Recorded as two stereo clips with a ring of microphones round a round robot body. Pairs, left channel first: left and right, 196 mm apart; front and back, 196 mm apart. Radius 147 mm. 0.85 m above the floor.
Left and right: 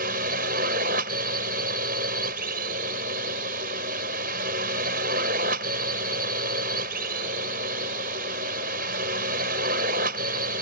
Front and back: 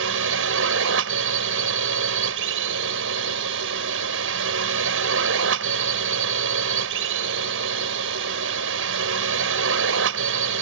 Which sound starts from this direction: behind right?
A drone, at 0.0 s.